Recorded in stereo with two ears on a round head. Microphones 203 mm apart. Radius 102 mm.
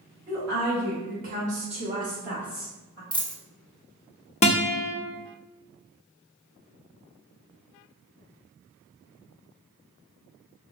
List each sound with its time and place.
0.3 s a woman speaking: 55° right (ahead or behind), 1.7 m; by 3.0 s 10° left (ahead or behind), 1.0 m
3.1 s a dropped coin: 5° left (ahead or behind), 0.8 m
4.4 s a guitar: 30° left (ahead or behind), 0.6 m